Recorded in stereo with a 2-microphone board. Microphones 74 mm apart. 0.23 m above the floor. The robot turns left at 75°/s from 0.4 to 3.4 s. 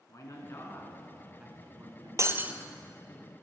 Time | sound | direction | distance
0.1 | a man speaking | 55° left | 3 m
2.2 | breaking glass | 45° right (ahead or behind) | 0.8 m